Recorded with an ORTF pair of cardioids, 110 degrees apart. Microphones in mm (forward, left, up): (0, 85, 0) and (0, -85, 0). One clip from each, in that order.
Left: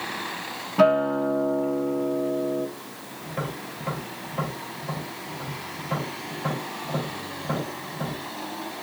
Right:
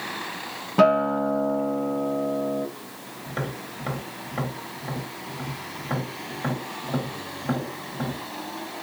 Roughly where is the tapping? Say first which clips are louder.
Even; right.